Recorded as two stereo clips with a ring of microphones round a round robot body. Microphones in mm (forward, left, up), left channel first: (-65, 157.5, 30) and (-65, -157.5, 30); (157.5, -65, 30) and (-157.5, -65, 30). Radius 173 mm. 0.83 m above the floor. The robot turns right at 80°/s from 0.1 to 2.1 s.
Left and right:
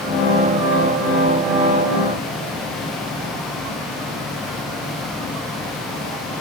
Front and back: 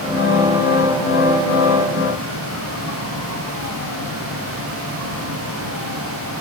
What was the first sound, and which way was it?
Only background noise.